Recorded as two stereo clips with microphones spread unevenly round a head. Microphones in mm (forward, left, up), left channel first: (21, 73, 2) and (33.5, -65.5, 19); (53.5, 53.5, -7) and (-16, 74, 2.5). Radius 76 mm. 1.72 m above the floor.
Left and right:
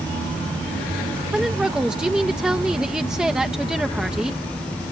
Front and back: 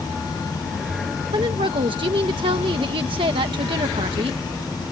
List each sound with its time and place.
1.3 s a woman speaking: 170° right